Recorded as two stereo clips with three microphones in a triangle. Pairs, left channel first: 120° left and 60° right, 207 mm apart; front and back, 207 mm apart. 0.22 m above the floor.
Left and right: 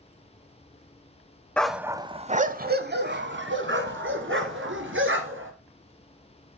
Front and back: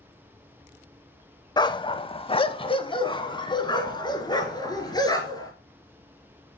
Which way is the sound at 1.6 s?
45° left.